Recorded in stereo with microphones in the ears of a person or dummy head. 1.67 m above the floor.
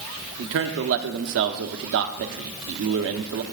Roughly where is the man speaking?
Right.